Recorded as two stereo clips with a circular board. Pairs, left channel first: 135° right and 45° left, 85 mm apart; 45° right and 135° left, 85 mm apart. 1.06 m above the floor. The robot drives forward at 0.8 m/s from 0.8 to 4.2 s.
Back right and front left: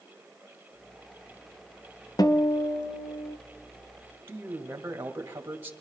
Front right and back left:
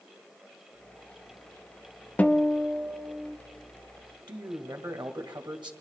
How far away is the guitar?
About 0.7 m.